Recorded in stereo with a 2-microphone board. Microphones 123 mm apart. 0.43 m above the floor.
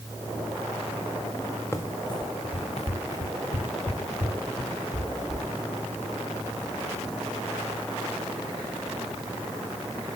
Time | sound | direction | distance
1.7 | running footsteps | 20° left (ahead or behind) | 1.2 m